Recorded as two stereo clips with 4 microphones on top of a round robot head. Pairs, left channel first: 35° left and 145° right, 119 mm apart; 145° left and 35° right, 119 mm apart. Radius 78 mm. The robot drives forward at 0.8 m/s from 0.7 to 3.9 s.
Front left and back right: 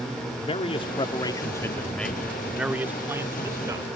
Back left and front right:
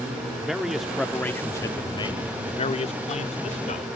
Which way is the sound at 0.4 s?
50° left.